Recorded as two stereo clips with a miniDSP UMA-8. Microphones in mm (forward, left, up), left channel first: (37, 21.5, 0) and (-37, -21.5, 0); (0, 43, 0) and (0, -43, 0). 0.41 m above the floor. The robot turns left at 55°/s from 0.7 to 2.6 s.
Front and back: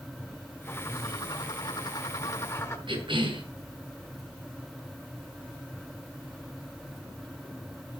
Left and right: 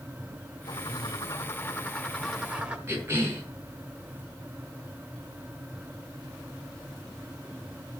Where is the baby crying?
I don't hear a baby crying.